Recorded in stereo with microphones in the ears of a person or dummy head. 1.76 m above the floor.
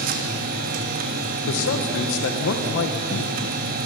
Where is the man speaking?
80° left, 1.7 m.